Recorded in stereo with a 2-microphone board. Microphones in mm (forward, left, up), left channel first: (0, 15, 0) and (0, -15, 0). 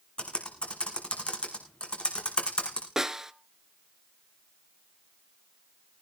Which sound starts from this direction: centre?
A snare drum, at 3.0 s.